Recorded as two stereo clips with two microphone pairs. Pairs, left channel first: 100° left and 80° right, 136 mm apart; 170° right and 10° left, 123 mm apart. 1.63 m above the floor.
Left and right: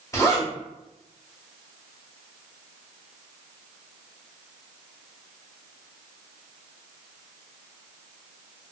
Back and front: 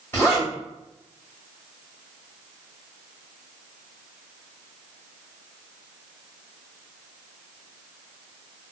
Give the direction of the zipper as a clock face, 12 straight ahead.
8 o'clock.